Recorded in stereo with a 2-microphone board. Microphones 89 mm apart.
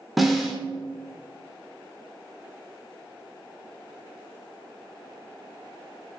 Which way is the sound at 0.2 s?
Centre (ahead or behind).